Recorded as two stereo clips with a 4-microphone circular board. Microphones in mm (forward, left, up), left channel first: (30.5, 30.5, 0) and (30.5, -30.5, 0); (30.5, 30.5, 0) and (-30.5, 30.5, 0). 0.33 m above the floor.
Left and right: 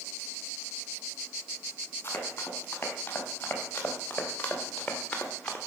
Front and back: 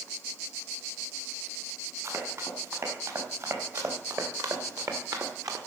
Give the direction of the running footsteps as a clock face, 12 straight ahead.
7 o'clock.